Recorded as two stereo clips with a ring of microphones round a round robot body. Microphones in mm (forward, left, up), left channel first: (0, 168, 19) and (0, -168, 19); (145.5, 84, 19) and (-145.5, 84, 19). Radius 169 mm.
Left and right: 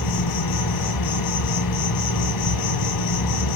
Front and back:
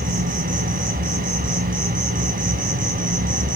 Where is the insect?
120° left, 4.5 m.